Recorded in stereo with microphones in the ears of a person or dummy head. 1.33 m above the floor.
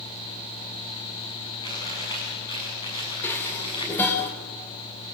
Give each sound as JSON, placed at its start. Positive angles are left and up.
{"t": 1.6, "sound": "chewing", "side_deg": 25, "distance_m": 8.0}
{"t": 3.2, "sound": "dishes clattering", "side_deg": 15, "distance_m": 3.5}